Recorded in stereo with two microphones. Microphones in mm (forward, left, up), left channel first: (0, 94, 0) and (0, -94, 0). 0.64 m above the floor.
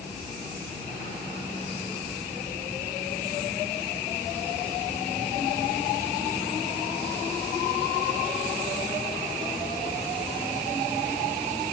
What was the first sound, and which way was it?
Only background noise.